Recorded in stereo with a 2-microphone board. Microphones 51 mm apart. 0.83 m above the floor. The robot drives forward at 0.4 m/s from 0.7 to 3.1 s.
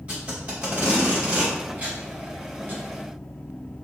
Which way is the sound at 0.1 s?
25° right (ahead or behind).